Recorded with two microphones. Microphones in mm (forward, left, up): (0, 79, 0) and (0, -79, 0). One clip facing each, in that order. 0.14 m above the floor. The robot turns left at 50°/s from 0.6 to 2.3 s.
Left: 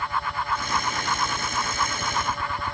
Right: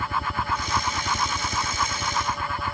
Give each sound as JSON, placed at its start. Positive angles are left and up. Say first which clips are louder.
{"t": 0.0, "sound": "a helicopter", "louder": "right 1 dB", "azimuth_deg": -80}